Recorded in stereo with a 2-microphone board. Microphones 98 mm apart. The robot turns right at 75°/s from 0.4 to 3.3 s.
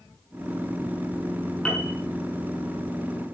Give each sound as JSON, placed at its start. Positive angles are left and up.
{"t": 1.6, "sound": "a piano", "side_deg": 15, "distance_m": 7.0}